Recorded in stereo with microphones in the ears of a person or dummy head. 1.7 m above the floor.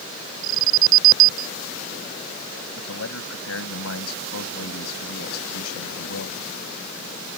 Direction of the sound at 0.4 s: 70° right (ahead or behind).